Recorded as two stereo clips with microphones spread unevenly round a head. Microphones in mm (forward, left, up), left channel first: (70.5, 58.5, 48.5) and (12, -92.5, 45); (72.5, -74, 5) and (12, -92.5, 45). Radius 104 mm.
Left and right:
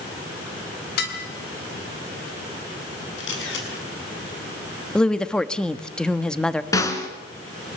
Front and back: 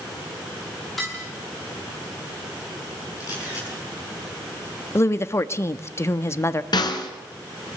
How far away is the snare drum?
About 3 m.